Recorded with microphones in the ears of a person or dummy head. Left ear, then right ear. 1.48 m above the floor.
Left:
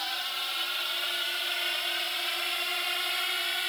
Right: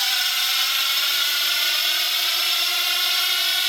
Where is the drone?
60° right (ahead or behind); by 3.7 s 40° right (ahead or behind).